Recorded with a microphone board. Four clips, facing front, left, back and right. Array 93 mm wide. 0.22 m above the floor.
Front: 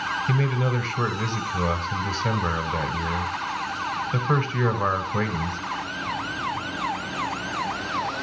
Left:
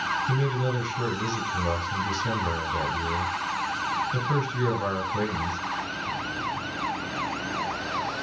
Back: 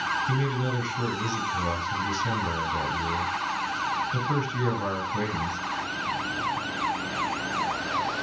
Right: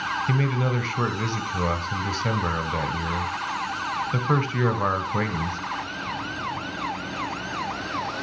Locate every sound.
0.3 s a man speaking: 60° right, 1.6 m